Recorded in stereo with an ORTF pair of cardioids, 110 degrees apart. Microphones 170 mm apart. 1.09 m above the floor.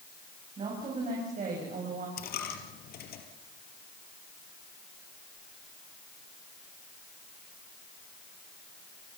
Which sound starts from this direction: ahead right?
A woman speaking, at 0.6 s.